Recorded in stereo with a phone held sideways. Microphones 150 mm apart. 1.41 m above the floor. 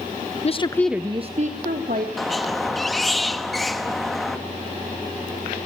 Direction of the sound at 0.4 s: 45° left (ahead or behind).